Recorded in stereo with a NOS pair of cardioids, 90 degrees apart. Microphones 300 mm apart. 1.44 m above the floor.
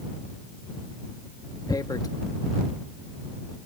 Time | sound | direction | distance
1.7 | tearing paper | 10° left | ?